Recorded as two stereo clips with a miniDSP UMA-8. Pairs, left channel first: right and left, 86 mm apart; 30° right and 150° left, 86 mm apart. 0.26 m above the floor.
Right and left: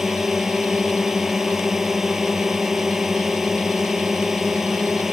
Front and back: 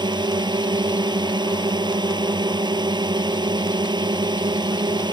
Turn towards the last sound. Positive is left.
turn(degrees=175)